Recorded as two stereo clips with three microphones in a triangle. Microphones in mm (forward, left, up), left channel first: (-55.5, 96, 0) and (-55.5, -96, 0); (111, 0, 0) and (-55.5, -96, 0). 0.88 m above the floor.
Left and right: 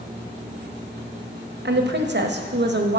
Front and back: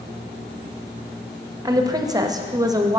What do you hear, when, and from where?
1.6 s a woman speaking: 80° right, 0.6 m